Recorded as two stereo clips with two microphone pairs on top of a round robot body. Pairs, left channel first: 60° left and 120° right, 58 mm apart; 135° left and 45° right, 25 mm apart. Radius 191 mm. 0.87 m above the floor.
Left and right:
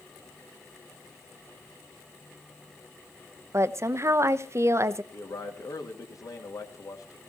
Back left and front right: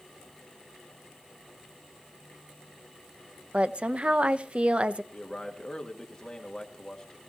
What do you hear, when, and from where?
3.5 s a woman speaking: 80° right, 0.7 m
5.1 s a man speaking: 70° left, 2.5 m